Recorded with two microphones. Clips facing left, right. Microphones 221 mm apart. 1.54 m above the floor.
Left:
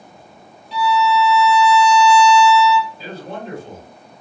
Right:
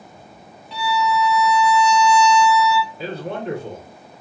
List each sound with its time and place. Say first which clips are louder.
0.7 s a violin: left 4 dB; 60° right (ahead or behind), 0.6 m
3.0 s a man speaking: right 3 dB; 65° right (ahead or behind), 1.2 m